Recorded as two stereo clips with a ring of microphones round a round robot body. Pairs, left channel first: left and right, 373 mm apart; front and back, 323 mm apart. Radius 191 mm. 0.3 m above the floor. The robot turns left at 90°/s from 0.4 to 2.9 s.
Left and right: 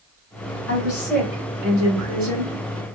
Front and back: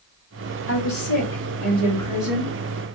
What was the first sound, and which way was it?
A woman speaking, 45° left.